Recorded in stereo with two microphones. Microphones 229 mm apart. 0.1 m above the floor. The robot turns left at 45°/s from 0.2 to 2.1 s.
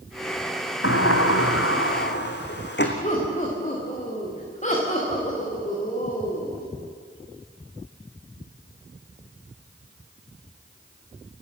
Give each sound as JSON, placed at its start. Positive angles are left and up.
{"t": 0.8, "sound": "a sliding door", "azimuth_deg": 110, "distance_m": 2.5}
{"t": 3.0, "sound": "laughter", "side_deg": 30, "distance_m": 8.0}